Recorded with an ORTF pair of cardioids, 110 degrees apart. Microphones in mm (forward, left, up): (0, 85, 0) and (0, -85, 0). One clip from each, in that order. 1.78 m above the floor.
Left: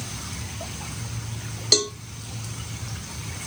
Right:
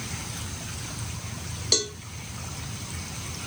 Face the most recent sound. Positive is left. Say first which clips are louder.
# left 4 dB
turn(degrees=20)